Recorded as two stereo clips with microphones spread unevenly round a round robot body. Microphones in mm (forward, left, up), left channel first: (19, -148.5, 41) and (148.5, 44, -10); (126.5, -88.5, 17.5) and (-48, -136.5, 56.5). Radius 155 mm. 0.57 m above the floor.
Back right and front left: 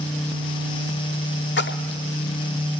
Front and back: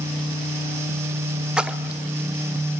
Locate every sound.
1.6 s a splash: 80° right, 1.0 m